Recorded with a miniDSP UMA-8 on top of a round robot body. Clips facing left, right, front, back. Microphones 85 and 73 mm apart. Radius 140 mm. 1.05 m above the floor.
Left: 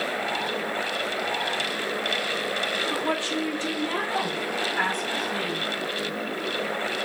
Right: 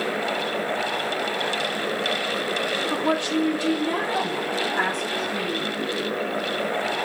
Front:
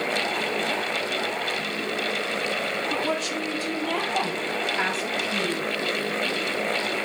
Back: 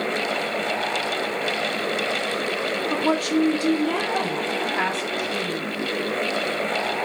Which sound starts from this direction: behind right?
A woman speaking, at 2.9 s.